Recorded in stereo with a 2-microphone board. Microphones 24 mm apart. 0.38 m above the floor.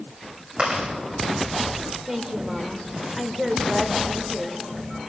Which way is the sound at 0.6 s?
55° right (ahead or behind).